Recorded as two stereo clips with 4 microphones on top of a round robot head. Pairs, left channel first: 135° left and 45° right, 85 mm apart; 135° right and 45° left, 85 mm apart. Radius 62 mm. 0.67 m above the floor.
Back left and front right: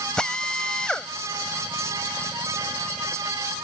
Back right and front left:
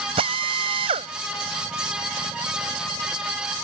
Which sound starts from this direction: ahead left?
A drill, at 0.2 s.